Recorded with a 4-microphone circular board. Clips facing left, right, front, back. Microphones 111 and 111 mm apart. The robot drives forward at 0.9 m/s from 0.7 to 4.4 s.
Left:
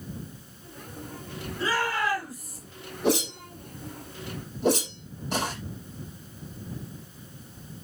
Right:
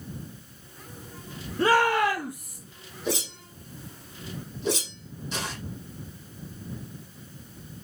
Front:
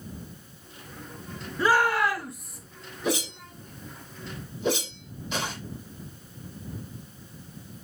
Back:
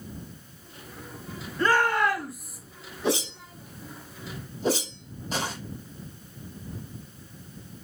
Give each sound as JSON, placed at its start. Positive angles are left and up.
{"t": 1.6, "sound": "a shout", "azimuth_deg": -75, "distance_m": 2.5}
{"t": 3.0, "sound": "a whoosh", "azimuth_deg": 115, "distance_m": 6.0}